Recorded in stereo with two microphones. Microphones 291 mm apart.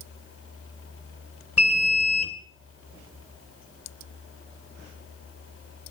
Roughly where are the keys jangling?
I don't hear keys jangling.